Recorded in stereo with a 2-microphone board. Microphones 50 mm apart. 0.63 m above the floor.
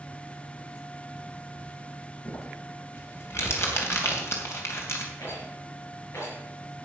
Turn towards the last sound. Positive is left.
turn(degrees=65)  # may be behind; listen again after turning